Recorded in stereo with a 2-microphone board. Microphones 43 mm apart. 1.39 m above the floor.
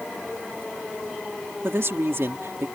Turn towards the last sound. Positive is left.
turn(degrees=-65)  # may be behind; listen again after turning